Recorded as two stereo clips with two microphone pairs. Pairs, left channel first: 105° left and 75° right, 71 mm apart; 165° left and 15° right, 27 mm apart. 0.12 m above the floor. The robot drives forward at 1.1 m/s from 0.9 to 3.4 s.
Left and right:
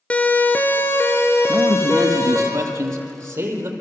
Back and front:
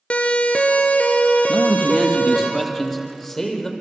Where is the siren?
165° left, 2 m; by 2.5 s 150° left, 4 m.